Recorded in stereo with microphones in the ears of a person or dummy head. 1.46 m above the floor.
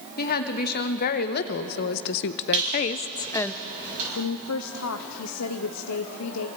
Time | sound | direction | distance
0.2 | a woman speaking | 45° left (ahead or behind) | 1.5 m
2.5 | a squeak | 40° right (ahead or behind) | 8.5 m
4.2 | a woman speaking | 80° left | 0.8 m